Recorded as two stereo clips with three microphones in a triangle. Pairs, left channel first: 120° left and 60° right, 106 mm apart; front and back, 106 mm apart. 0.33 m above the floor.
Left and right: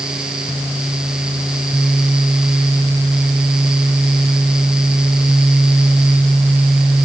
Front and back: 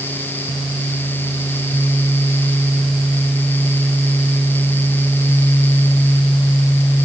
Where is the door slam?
I don't hear a door slam.